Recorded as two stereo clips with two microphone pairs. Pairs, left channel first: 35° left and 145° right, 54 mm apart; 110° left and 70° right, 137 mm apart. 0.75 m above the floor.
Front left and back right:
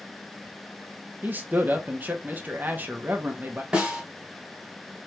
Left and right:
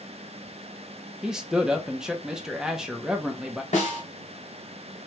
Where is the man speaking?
150° right, 0.9 m.